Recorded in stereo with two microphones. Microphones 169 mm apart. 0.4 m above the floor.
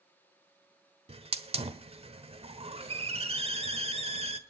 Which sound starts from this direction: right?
A hiss, at 1.1 s.